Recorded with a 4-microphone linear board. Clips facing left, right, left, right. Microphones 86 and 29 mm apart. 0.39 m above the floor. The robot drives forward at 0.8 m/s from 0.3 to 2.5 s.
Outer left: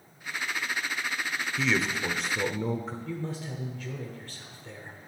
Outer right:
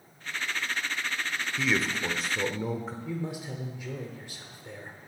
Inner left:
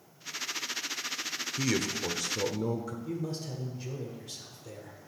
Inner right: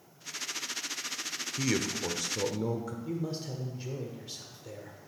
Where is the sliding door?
I don't hear a sliding door.